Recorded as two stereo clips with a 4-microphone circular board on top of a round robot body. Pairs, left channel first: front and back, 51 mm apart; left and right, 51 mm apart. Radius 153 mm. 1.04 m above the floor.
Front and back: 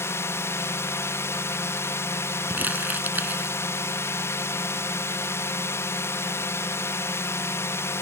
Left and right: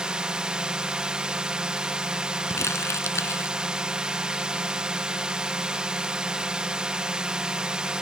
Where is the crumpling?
120° left.